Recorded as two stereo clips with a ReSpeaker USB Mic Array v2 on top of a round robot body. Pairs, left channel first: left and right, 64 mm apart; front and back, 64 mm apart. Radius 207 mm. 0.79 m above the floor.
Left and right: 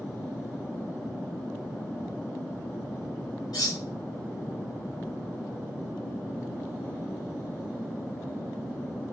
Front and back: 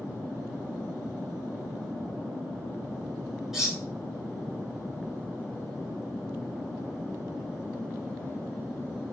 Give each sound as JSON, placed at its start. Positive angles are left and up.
{"t": 3.5, "sound": "cutlery clinking", "azimuth_deg": 95, "distance_m": 1.9}